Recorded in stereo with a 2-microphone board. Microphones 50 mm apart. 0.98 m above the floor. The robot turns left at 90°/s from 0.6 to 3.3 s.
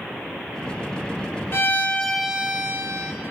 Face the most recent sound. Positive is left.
turn(degrees=-105)